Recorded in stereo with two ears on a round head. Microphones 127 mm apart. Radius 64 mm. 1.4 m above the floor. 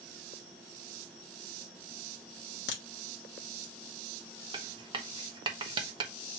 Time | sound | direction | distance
2.7 | a crack | 85° left | 1.2 m
4.5 | writing | 30° right (ahead or behind) | 0.7 m